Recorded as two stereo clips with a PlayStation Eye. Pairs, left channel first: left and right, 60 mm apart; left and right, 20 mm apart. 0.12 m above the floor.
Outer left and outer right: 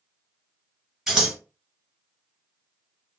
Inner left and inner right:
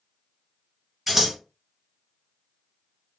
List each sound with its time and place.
1.1 s scissors: 5° right (ahead or behind), 1.8 m